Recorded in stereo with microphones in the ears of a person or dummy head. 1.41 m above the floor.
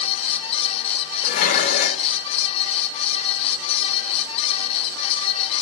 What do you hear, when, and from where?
1.2 s dishes clattering: 45° left (ahead or behind), 1.2 m